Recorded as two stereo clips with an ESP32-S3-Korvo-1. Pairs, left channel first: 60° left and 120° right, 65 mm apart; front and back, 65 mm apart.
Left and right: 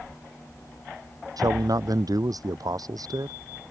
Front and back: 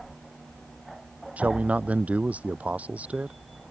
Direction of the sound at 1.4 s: 115° right.